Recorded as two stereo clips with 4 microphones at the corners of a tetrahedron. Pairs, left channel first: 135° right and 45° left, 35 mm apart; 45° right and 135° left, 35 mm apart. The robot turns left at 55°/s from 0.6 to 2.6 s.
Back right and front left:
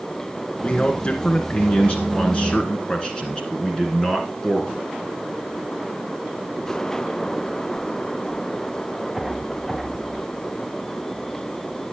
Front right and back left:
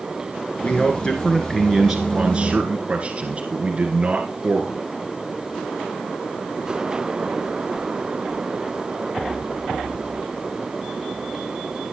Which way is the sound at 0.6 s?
80° right.